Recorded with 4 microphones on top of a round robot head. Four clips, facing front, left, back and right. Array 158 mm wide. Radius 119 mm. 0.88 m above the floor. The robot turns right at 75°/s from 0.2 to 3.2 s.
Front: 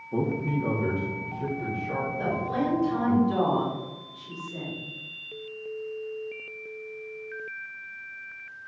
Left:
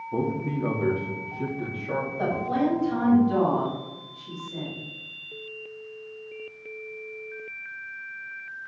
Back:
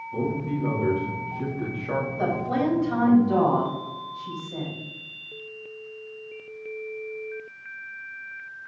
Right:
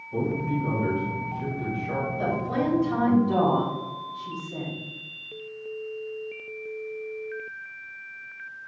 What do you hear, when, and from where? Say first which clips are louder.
0.1 s a man speaking: right 1 dB, even; 45° left, 2.0 m; by 3.2 s 90° right, 2.0 m
2.2 s a woman speaking: left 3 dB, back 3 dB; 145° left, 3 m; by 4.7 s 140° right, 3 m